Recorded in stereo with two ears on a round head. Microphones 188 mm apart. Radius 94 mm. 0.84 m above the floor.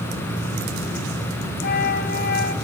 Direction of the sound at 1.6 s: 45° left (ahead or behind).